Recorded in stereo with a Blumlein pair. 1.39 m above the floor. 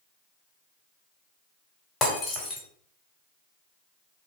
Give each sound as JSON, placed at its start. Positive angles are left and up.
{"t": 2.0, "sound": "breaking glass", "azimuth_deg": 15, "distance_m": 2.5}